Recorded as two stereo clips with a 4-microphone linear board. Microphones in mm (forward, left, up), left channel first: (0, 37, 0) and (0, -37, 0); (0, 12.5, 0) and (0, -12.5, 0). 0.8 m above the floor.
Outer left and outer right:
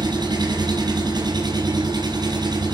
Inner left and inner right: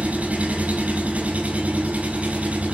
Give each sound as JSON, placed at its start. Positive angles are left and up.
{"t": 0.0, "sound": "an engine running", "side_deg": -80, "distance_m": 4.5}